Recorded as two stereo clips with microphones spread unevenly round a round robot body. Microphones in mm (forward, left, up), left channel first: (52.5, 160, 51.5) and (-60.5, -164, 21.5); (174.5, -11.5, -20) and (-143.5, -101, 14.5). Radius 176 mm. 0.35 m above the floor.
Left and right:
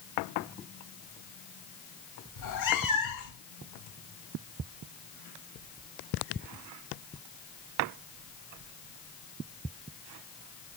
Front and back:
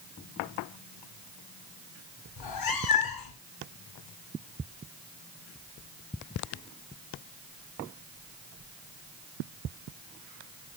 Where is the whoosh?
No whoosh in this recording.